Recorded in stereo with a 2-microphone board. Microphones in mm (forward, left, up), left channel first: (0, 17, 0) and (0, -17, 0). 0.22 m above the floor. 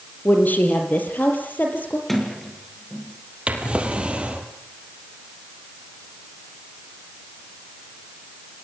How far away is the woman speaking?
About 5 m.